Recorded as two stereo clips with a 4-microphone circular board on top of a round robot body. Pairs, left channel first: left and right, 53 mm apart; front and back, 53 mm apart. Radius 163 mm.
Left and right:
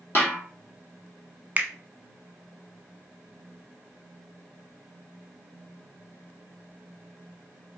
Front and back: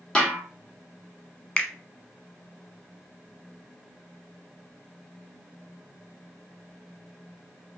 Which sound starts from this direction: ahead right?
A finger snap, at 1.6 s.